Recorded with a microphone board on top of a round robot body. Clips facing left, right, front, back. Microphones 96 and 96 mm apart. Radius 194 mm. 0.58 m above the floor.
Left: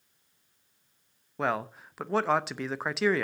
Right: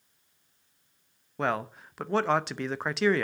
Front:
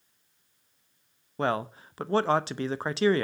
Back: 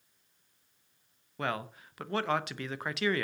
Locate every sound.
1.4 s a man speaking: 5° left, 1.0 m